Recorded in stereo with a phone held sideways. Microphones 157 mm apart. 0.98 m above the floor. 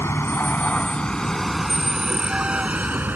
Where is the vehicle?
15° left (ahead or behind); by 3.1 s 10° right (ahead or behind).